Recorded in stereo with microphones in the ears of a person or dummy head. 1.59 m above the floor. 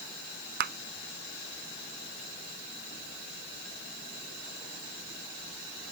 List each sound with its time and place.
0.6 s a clap: 55° right (ahead or behind)